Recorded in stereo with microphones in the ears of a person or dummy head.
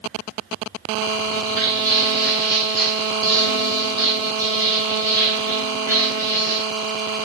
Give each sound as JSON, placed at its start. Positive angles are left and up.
{"t": 1.2, "sound": "footsteps", "side_deg": 40, "distance_m": 1.9}